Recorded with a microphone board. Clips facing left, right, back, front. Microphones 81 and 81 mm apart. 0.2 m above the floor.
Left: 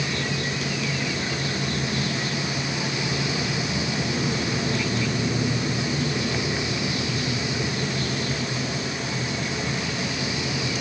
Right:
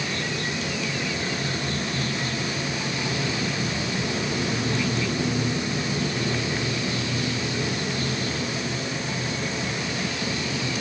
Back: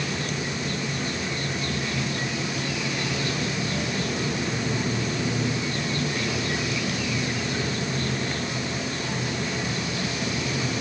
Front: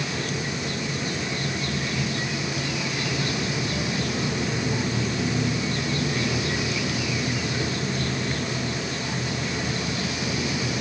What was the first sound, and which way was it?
Only background noise.